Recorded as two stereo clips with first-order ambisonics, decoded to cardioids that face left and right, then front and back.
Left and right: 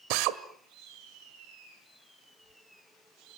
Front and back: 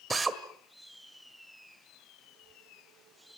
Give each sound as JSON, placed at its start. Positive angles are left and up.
{"t": 0.1, "sound": "a drill", "azimuth_deg": -105, "distance_m": 1.8}